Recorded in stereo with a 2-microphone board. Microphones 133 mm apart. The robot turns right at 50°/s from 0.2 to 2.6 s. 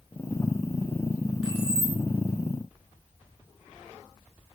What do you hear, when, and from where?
1.4 s keys jangling: 5° right (ahead or behind), 6.5 m; by 2.0 s 30° right (ahead or behind), 6.5 m